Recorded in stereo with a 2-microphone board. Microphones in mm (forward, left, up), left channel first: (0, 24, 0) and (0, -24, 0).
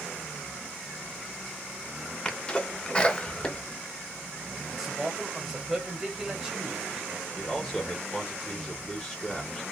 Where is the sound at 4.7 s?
5° right (ahead or behind), 1.3 m.